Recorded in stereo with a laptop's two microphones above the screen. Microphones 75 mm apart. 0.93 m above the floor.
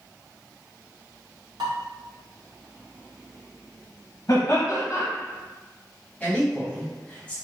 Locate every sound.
1.6 s dishes clattering: 90° right, 1.4 m
4.3 s laughter: 45° left (ahead or behind), 1.3 m
6.2 s a man speaking: 15° left (ahead or behind), 1.0 m